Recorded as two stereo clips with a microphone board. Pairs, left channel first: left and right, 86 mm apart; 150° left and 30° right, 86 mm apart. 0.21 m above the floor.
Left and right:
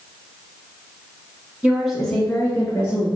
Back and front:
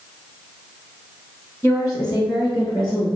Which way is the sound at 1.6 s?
160° right.